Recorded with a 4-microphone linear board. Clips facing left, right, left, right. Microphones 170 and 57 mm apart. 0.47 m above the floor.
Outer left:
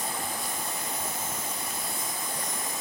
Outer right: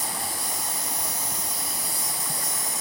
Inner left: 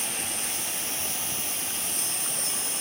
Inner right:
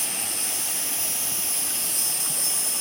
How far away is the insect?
About 0.7 m.